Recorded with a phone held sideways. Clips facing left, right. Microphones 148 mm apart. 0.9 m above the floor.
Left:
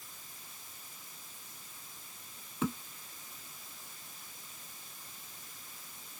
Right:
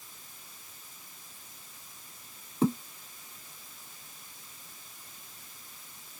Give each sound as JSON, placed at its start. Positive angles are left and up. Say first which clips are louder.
{"t": 2.6, "sound": "a thud", "louder": "right 8 dB", "side_deg": -35}